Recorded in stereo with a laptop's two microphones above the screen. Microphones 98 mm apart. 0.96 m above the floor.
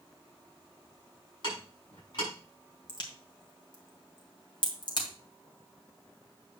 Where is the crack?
55° left (ahead or behind), 1.9 m.